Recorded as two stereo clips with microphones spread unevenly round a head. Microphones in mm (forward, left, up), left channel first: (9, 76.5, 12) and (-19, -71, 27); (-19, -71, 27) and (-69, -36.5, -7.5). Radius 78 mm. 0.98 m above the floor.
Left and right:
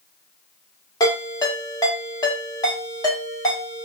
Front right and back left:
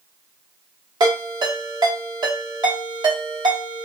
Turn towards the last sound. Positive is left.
turn(degrees=145)